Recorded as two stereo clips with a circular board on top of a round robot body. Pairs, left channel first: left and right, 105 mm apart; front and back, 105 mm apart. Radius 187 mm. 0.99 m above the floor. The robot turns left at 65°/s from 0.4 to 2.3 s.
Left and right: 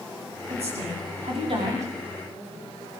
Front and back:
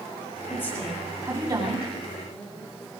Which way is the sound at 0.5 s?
65° right.